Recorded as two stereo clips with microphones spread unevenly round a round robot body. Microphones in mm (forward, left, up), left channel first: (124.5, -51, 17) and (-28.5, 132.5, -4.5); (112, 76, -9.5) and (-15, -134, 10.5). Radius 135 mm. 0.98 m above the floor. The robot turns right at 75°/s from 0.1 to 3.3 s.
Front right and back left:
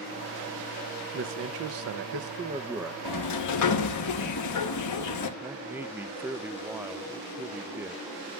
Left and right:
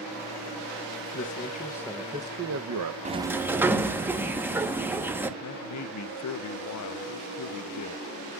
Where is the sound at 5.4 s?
50° left, 0.6 m.